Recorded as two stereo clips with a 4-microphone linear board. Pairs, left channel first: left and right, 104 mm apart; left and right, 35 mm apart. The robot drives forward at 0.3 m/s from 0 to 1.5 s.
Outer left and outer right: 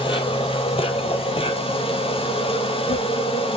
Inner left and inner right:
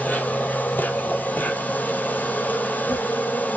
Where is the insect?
60° left (ahead or behind), 0.8 m; by 3.6 s 70° left (ahead or behind), 0.7 m.